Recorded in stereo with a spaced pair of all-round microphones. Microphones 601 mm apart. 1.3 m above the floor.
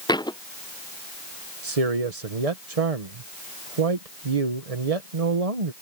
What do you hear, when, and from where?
0.1 s a thud: 5° left (ahead or behind)
1.6 s a man speaking: 75° right (ahead or behind)